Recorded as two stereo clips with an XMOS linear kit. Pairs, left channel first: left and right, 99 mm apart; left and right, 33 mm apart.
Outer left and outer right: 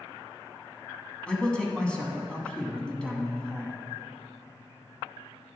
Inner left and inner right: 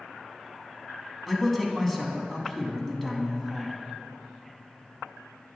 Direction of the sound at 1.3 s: 10° left (ahead or behind).